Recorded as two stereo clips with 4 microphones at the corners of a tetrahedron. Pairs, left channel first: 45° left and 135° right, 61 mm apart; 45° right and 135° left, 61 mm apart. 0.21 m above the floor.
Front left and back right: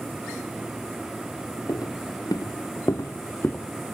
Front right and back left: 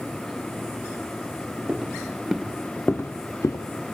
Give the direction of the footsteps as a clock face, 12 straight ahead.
10 o'clock.